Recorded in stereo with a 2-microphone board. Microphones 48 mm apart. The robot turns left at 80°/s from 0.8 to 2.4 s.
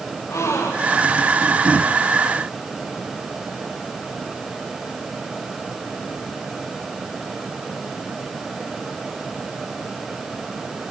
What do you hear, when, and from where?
0.3 s a gasp: 75° left (ahead or behind), 7.5 m; by 1.1 s 80° left, 7.5 m